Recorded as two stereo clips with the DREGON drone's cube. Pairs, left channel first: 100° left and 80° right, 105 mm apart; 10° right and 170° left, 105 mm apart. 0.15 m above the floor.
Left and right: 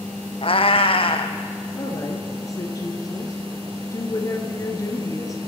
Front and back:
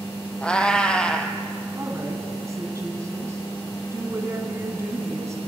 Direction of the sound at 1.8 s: 130° left.